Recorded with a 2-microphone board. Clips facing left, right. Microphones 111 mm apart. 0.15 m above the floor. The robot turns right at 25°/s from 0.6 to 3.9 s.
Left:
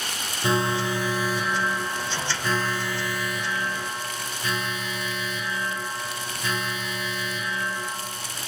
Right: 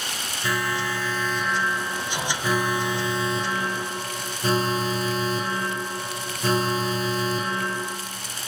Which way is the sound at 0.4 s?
150° left.